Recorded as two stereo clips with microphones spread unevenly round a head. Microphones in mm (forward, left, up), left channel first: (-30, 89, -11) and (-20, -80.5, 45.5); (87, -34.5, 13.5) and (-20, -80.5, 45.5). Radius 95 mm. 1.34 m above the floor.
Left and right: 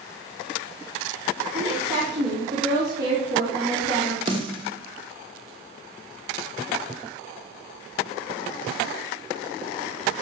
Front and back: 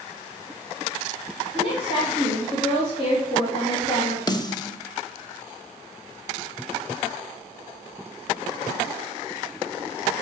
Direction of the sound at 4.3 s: 35° right.